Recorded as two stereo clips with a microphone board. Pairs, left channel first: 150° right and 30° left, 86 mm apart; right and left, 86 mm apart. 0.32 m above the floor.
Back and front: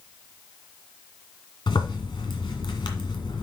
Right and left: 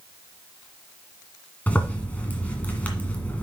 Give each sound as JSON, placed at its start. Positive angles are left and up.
{"t": 1.7, "sound": "a zipper", "azimuth_deg": -160, "distance_m": 1.9}